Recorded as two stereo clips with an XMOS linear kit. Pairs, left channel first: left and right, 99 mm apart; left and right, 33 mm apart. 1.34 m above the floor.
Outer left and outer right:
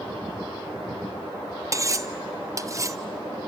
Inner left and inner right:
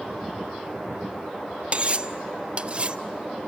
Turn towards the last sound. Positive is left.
turn(degrees=-35)  # may be behind; listen again after turning